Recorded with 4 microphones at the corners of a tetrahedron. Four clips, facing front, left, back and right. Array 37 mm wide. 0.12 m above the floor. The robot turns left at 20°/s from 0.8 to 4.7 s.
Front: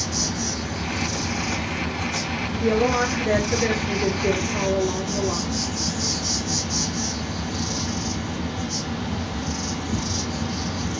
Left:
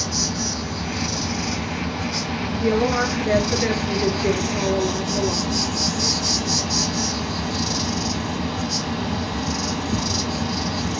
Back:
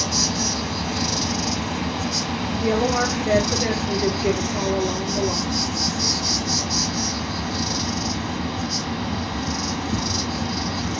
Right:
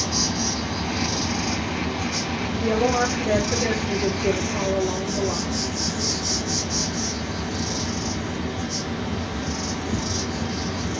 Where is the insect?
165° right, 0.9 m; by 11.0 s 120° left, 0.9 m.